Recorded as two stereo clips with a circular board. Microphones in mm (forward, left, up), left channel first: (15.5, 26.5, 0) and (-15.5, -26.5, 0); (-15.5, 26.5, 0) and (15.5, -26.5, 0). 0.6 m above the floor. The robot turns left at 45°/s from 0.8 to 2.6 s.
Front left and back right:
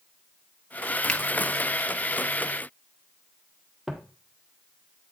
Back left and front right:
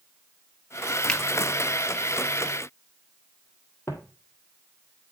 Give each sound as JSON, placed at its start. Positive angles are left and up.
{"t": 1.1, "sound": "a finger snap", "azimuth_deg": 85, "distance_m": 0.9}
{"t": 3.9, "sound": "footsteps", "azimuth_deg": 160, "distance_m": 1.3}